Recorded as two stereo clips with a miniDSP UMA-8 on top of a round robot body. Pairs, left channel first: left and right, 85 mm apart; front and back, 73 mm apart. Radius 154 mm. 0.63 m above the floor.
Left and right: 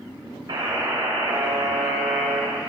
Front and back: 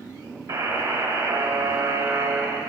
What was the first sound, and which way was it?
A buzzer, 135° right.